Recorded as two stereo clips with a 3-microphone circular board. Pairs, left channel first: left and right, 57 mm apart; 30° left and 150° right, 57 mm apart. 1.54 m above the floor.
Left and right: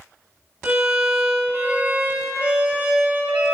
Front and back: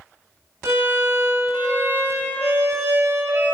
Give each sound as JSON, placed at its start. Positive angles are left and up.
{"t": 0.6, "sound": "a violin", "azimuth_deg": -140, "distance_m": 2.0}